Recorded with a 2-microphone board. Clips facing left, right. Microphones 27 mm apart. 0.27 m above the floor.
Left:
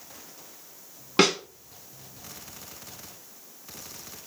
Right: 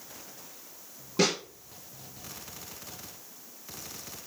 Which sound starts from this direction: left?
A snare drum, at 1.2 s.